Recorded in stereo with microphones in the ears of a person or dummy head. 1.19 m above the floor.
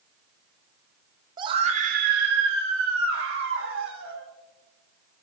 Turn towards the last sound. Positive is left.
turn(degrees=-90)